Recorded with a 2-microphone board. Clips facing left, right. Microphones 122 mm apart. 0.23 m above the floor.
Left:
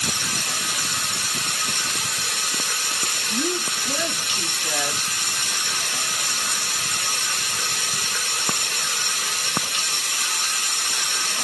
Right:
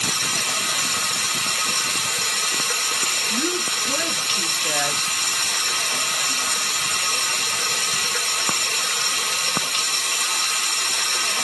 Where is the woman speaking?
10° left (ahead or behind), 1.2 m.